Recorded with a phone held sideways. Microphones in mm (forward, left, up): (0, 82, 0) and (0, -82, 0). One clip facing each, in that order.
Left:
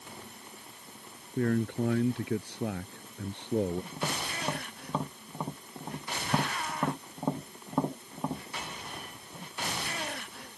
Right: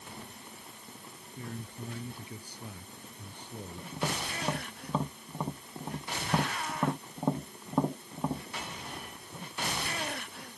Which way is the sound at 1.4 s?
85° left.